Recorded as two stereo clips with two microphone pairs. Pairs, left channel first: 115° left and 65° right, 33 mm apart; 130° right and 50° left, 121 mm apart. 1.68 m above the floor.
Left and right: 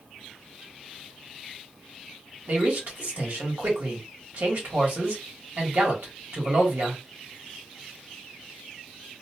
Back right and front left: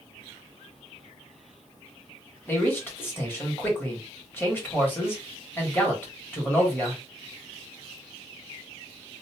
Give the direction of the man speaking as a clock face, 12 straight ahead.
2 o'clock.